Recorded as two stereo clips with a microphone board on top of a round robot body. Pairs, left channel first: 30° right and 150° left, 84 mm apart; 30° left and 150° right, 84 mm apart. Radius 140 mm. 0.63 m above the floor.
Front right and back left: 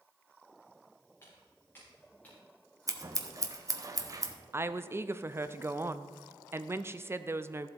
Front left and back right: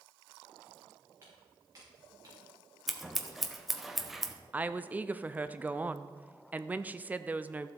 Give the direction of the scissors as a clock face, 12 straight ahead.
8 o'clock.